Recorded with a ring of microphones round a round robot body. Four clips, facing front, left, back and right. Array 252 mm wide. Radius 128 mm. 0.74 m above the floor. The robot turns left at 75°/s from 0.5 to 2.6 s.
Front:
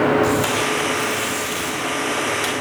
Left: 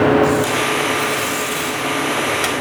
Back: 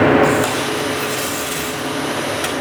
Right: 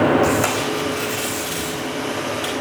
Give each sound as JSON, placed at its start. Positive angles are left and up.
{"t": 0.2, "sound": "tape being pulled", "azimuth_deg": -125, "distance_m": 4.5}